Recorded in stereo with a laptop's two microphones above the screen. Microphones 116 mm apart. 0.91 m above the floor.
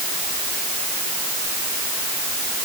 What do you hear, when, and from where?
Only background noise.